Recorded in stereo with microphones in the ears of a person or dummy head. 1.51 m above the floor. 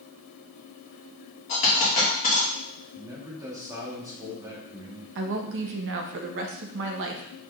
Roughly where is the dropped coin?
Left.